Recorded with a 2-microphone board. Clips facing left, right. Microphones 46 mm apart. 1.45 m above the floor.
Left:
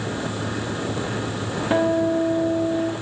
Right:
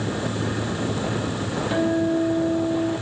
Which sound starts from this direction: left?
A guitar, at 1.7 s.